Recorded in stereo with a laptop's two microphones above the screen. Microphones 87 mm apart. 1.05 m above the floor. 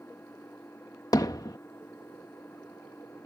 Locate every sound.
0.0 s an engine running: 25° left (ahead or behind)
1.1 s hammering: 45° left (ahead or behind)